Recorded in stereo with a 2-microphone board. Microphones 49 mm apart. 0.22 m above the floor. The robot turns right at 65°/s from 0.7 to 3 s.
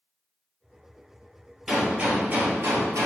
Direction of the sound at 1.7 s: Straight behind.